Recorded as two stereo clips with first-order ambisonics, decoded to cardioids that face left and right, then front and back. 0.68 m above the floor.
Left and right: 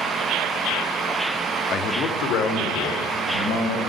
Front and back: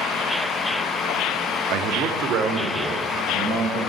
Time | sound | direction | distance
1.7 | a man speaking | 145° left | 0.7 m